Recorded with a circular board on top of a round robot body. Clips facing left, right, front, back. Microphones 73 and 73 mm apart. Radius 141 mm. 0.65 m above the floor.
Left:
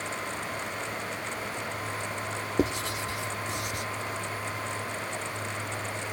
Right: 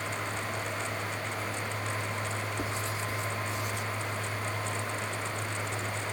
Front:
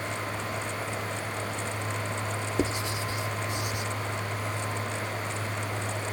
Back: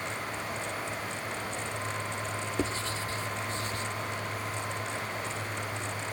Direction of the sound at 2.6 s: 75° left.